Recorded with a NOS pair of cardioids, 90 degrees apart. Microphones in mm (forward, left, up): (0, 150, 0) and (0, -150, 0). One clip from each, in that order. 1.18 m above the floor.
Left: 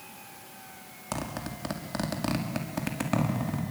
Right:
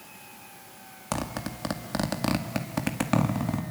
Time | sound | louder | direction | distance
1.1 | a zipper | right 3 dB | 25° right | 2 m